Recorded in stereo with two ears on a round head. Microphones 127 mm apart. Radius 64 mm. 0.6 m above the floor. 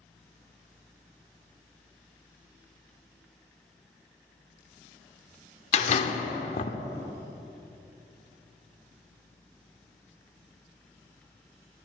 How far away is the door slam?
About 0.8 m.